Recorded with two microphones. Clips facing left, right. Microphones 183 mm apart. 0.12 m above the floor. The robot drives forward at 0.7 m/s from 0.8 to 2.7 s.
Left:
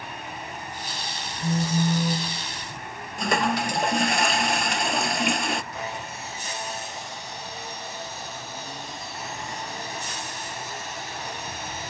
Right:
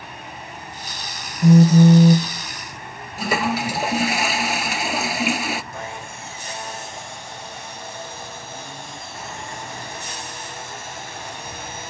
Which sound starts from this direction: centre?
A toilet flushing, at 3.2 s.